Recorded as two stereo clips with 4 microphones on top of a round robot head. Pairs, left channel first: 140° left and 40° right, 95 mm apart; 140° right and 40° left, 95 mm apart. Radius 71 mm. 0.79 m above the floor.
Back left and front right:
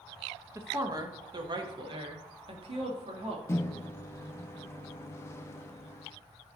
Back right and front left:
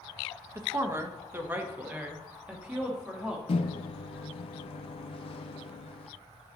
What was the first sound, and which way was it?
A woman speaking, straight ahead.